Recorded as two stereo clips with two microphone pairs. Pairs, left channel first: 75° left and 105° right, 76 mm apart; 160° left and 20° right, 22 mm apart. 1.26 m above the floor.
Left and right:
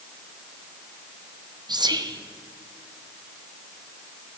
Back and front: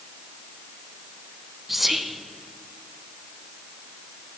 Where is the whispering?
110° right, 0.7 m.